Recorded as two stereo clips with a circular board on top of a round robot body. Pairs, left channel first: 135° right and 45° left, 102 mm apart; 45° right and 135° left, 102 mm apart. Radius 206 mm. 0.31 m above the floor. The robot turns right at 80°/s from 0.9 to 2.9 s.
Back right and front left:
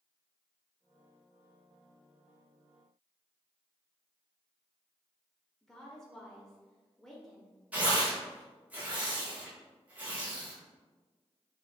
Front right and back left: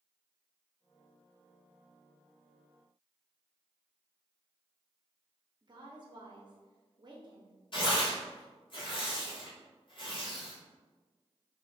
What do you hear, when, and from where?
5.6 s a woman speaking: 140° left, 1.1 m
7.7 s tearing paper: 30° right, 1.8 m